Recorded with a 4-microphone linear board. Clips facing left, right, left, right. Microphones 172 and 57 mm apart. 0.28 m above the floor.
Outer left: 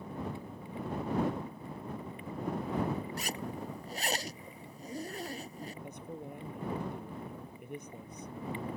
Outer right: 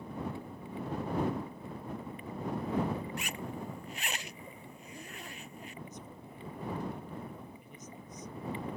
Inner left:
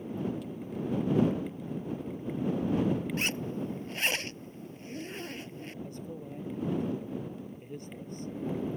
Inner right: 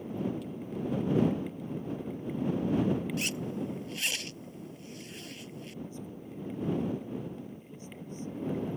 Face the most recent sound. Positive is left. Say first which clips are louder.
# outer left 5 dB, inner left 2 dB
turn(degrees=60)  # may be behind; listen again after turning